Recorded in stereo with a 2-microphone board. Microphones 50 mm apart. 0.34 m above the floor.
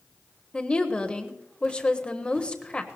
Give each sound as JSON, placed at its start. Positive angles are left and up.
{"t": 0.5, "sound": "a woman speaking", "side_deg": 20, "distance_m": 1.3}